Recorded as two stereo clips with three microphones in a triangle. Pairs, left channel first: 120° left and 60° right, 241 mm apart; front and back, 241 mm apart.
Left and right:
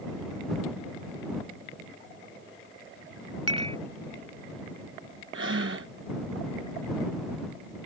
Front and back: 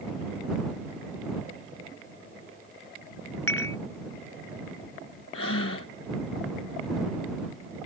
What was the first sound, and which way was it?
Dishes clattering, 5° left.